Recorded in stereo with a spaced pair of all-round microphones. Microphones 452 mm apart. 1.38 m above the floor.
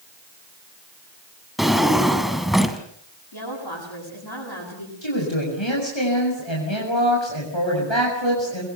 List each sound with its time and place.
1.6 s a drawer: centre (ahead or behind), 2.5 m
3.3 s a woman speaking: 60° left (ahead or behind), 10 m
5.0 s a woman speaking: 75° left (ahead or behind), 7 m